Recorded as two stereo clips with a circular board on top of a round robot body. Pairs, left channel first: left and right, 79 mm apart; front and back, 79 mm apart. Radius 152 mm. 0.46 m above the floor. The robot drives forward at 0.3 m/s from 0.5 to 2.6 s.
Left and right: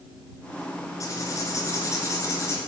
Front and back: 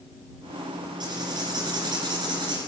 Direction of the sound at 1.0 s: 145° left.